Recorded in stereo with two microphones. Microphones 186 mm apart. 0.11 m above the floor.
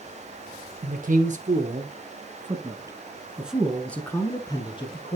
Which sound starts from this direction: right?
A man speaking, at 0.8 s.